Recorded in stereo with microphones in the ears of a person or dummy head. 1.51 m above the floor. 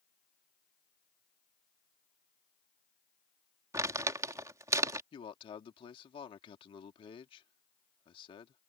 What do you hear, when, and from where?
3.7 s crumpling: 20° right (ahead or behind)
5.1 s a man speaking: 30° left (ahead or behind)